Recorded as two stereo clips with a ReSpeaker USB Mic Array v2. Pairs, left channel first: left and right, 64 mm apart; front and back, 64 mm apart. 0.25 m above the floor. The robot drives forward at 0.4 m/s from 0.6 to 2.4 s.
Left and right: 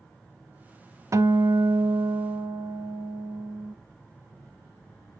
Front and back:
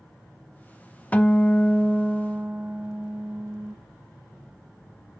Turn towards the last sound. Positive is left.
turn(degrees=-110)